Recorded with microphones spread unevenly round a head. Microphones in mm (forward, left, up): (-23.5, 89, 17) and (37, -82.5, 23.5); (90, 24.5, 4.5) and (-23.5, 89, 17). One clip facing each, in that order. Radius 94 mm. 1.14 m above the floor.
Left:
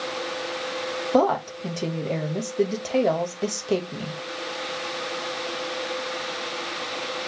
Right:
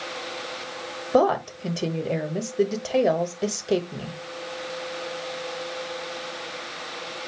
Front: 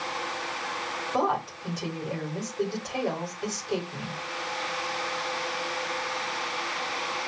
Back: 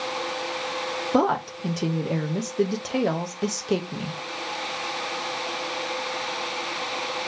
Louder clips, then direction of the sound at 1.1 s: Right 1 dB, back 5 dB; 155° right.